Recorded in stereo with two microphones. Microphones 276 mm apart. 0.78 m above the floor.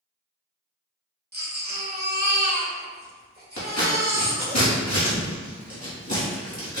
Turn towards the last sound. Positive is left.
turn(degrees=75)  # may be behind; listen again after turning